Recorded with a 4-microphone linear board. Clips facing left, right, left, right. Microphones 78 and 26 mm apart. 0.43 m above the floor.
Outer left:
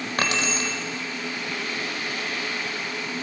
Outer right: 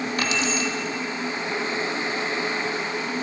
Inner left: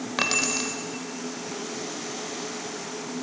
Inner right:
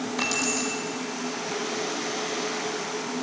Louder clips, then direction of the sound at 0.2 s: Outer left 2 dB, inner left 3 dB; 55° left (ahead or behind).